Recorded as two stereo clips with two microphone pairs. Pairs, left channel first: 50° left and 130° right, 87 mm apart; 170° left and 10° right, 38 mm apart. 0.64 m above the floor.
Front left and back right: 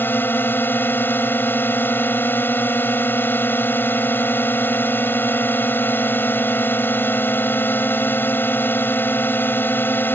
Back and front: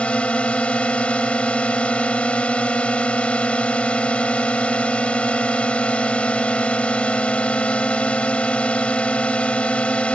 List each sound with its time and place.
0.0 s a drone: 115° left